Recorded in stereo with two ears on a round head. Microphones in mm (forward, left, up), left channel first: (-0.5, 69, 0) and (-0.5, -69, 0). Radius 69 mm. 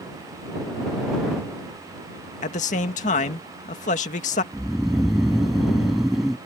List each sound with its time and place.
2.4 s a man speaking: 50° left (ahead or behind)
4.5 s snoring: centre (ahead or behind)